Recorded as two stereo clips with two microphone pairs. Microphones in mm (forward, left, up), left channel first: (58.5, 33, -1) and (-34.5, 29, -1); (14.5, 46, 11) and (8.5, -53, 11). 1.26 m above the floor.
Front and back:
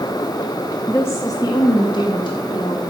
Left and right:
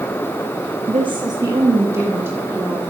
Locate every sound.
0.9 s a woman speaking: 70° right, 0.9 m; by 2.8 s 20° right, 2.5 m